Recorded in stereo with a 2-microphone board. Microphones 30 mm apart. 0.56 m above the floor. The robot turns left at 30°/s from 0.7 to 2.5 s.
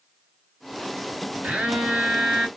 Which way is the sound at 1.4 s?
85° right.